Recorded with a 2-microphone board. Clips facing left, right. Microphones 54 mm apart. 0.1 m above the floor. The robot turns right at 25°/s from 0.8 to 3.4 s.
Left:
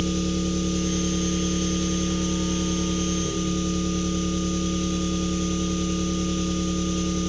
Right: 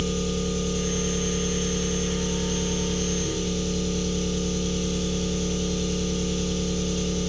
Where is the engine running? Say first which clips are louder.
Left 2 dB; 95° left, 1.4 m; by 7.3 s 160° left, 1.4 m.